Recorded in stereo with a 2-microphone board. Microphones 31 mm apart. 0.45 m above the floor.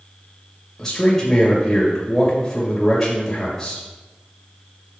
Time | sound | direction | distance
0.8 | a man speaking | 15° left (ahead or behind) | 2 m